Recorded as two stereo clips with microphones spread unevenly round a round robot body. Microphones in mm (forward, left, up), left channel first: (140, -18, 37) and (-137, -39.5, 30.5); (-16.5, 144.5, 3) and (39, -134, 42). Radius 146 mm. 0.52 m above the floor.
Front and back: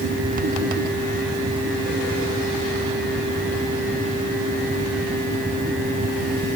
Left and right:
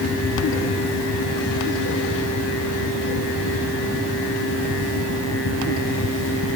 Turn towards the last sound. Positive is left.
No sound to turn to.